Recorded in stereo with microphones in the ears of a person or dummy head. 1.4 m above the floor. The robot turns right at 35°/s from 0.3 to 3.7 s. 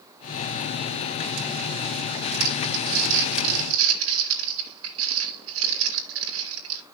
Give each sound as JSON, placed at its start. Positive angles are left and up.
{"t": 2.4, "sound": "crumpling", "side_deg": -50, "distance_m": 2.0}